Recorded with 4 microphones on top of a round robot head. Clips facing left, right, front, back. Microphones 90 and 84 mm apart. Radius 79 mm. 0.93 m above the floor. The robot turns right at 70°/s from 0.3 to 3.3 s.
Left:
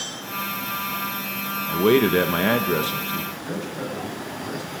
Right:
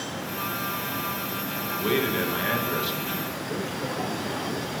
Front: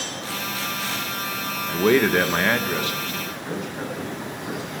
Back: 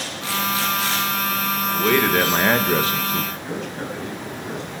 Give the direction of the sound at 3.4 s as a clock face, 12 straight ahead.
9 o'clock.